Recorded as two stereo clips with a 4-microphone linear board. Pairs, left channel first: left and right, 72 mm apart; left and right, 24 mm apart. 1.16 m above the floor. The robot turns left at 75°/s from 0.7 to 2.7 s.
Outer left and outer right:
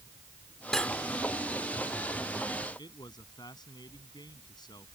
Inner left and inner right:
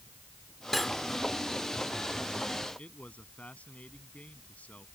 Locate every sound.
0.7 s cutlery clinking: 5° left (ahead or behind); by 1.0 s 25° left (ahead or behind)
2.8 s a man speaking: 75° left (ahead or behind)